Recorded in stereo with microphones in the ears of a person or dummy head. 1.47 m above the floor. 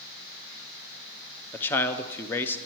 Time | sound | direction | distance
1.5 | a man speaking | 10° left (ahead or behind) | 0.6 m